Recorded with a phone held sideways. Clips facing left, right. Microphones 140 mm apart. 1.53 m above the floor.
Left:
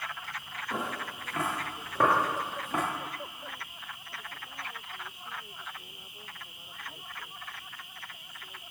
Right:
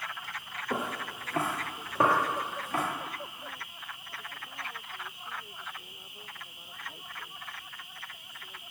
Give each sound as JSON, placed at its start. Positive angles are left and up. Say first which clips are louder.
{"t": 0.7, "sound": "footsteps", "louder": "right 2 dB", "side_deg": -50, "distance_m": 2.0}